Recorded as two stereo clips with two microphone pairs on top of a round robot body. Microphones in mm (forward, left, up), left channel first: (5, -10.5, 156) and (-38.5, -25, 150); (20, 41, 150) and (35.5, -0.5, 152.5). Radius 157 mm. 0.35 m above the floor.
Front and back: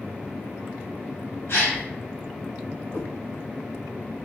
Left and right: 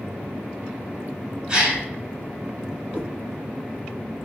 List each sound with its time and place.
1.5 s a gasp: 5° left, 1.6 m
2.9 s a cat meowing: 10° right, 0.6 m